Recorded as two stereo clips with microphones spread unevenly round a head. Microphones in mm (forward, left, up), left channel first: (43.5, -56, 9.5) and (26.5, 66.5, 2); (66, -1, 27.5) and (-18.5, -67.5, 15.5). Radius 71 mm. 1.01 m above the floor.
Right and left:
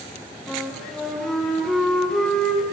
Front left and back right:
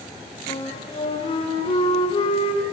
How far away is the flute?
About 6 m.